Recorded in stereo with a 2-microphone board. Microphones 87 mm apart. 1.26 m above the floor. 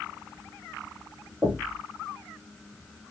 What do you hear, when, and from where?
1.4 s knocking: 20° right (ahead or behind), 2.0 m